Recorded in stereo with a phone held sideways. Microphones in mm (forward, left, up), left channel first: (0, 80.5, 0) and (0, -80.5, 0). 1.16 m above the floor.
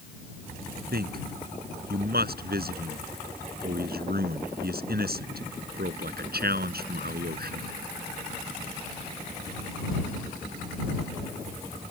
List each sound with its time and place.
0.9 s a man speaking: 65° right (ahead or behind)